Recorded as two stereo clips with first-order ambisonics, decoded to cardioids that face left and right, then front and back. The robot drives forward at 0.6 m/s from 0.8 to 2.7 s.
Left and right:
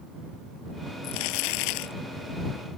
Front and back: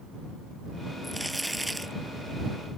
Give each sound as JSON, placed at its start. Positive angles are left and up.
{"t": 1.0, "sound": "crumpling", "azimuth_deg": 90}